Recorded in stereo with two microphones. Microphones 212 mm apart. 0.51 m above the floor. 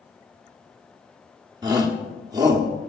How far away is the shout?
About 1.3 m.